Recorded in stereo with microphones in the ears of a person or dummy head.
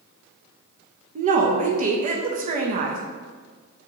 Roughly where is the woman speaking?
Right.